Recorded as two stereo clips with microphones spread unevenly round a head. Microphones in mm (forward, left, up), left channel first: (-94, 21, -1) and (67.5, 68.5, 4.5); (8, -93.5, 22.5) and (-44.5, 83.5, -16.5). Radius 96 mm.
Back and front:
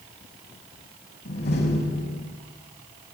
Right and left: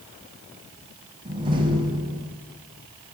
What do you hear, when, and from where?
1.2 s a door slam: 175° left, 6 m